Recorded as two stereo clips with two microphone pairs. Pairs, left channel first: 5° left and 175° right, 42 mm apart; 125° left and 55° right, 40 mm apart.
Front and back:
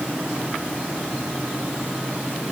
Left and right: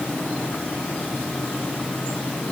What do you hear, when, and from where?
Only background noise.